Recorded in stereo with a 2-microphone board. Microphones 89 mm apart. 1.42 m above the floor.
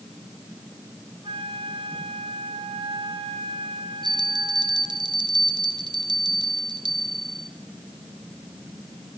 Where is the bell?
50° right (ahead or behind), 0.9 m.